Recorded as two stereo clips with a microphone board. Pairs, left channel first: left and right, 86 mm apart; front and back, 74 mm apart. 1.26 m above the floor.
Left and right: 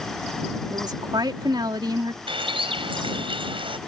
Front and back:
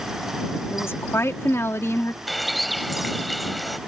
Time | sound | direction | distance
0.7 | a woman speaking | 55° right | ?
2.3 | a bird | 90° right | ?